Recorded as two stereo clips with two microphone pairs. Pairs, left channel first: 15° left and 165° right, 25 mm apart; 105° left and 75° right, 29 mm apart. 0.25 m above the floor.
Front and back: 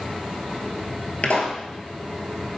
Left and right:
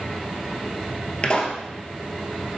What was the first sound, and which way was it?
A pop, 50° left.